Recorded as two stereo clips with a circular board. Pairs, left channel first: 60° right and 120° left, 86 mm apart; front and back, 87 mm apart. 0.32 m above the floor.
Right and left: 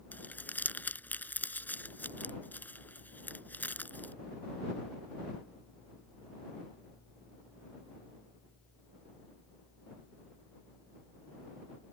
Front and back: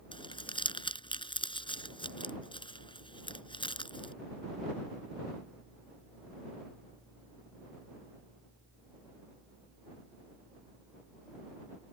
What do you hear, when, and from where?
0.1 s crumpling: 10° left